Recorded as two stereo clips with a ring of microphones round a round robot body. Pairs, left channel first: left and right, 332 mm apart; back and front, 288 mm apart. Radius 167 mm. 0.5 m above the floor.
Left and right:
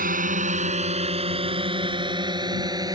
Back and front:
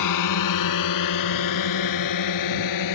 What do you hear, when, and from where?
0.0 s a drone: 155° right; by 3.0 s 170° right